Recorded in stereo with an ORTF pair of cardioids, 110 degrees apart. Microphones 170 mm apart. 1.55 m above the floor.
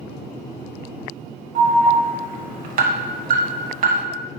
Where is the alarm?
55° right, 0.9 m.